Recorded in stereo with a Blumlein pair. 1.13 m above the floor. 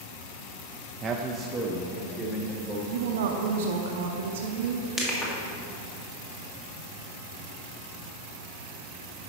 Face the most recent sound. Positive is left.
turn(degrees=20)